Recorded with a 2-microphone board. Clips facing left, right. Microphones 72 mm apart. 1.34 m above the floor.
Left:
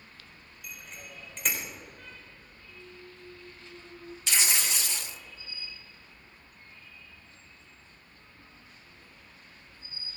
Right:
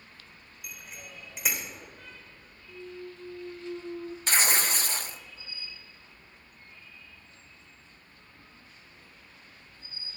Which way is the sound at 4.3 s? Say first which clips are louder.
Right 4 dB; 45° right (ahead or behind).